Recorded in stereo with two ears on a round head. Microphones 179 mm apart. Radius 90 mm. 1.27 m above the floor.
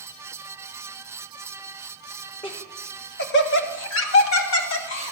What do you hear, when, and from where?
2.4 s laughter: 25° left (ahead or behind), 1.6 m; by 5.1 s 70° left (ahead or behind), 2.5 m